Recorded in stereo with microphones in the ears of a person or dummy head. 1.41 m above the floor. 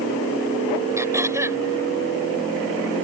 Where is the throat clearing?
15° right (ahead or behind).